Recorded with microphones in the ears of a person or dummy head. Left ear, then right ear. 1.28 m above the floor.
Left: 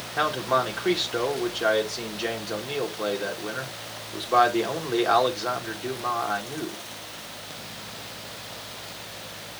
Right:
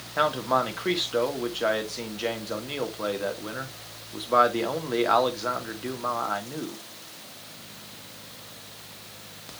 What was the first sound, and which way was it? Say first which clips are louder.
A man speaking: even; 5° right (ahead or behind).